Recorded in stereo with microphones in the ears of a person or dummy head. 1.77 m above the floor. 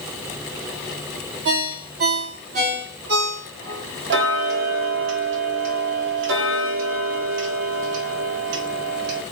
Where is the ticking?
60° right (ahead or behind), 0.8 m.